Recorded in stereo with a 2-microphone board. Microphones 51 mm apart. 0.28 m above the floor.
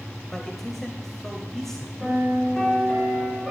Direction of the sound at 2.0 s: 25° left (ahead or behind).